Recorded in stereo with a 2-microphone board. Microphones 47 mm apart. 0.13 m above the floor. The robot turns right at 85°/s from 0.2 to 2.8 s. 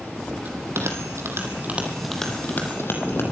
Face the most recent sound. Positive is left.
turn(degrees=55)  # may be behind; listen again after turning